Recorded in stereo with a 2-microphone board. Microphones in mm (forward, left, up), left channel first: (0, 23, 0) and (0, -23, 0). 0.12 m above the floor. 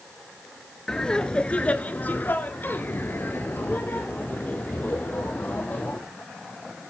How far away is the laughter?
About 1.6 m.